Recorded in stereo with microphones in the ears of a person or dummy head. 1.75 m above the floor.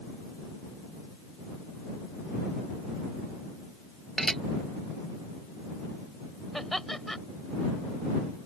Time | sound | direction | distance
4.2 | dishes clattering | 5° left (ahead or behind) | ?
6.5 | laughter | 5° left (ahead or behind) | ?